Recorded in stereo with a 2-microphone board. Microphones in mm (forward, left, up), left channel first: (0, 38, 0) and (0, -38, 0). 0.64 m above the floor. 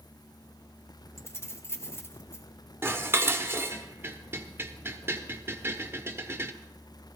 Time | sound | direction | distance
1.2 | keys jangling | 30° left (ahead or behind) | 1.4 m
2.8 | dishes clattering | 30° right (ahead or behind) | 1.1 m